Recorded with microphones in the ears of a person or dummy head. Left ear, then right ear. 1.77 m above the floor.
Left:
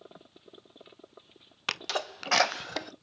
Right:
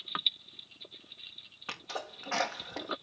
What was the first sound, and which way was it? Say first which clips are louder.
A sneeze: left 8 dB; 75° left (ahead or behind).